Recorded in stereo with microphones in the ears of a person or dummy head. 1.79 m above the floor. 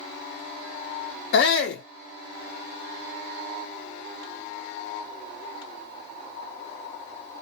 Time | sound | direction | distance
1.3 | a shout | 65° left (ahead or behind) | 0.5 m